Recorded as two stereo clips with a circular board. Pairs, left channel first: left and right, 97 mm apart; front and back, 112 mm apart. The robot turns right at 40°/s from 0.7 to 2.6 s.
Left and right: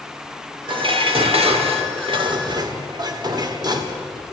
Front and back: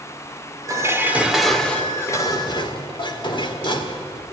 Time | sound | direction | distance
0.7 | dishes clattering | 120° right | 1.8 m